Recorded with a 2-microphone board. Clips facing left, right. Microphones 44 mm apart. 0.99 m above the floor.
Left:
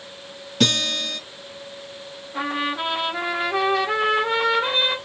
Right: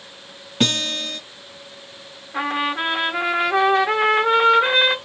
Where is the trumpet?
50° right (ahead or behind), 1.8 m.